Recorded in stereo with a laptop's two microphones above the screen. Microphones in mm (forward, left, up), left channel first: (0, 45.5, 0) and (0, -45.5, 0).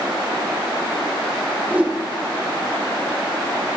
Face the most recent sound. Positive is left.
turn(degrees=-15)  # may be behind; listen again after turning